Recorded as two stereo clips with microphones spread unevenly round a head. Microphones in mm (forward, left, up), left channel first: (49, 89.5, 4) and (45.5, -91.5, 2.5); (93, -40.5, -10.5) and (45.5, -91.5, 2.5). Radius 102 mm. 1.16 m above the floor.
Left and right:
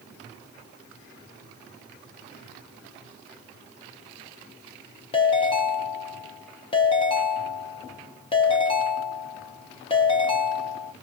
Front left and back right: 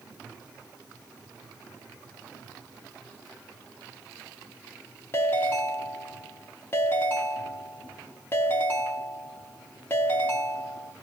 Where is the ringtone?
90° left, 0.7 m.